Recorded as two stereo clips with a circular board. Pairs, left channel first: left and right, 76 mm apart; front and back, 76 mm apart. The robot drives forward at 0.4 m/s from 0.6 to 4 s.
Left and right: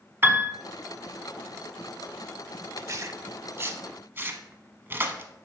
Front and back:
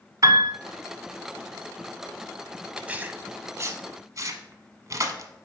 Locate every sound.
0.2 s a piano: 145° right, 0.8 m
2.8 s tearing paper: 110° right, 0.6 m; by 5.3 s 145° right, 0.9 m